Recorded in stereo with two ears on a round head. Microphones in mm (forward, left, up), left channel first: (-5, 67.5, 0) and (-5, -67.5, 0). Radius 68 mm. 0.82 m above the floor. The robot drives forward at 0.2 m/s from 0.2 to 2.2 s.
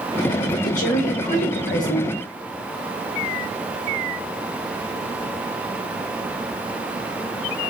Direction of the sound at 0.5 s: 55° left (ahead or behind).